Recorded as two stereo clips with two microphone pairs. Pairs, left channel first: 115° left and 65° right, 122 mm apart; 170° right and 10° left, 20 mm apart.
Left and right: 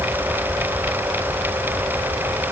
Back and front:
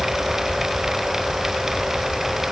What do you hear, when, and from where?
Only background noise.